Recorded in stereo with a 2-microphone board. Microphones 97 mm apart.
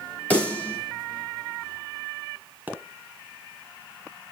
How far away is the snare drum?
About 7 m.